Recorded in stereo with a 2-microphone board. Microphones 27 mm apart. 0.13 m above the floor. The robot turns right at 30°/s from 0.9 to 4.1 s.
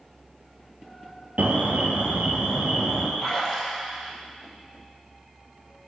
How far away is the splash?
About 4.5 m.